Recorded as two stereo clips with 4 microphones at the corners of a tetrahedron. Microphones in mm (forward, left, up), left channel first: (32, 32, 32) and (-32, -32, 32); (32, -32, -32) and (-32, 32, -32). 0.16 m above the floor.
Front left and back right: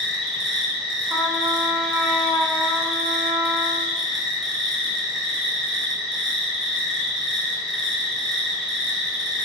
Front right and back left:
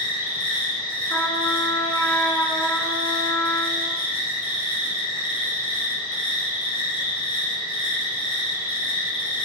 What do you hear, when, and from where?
0.0 s an insect: 45° right, 3 m
1.1 s a trumpet: 80° right, 1.2 m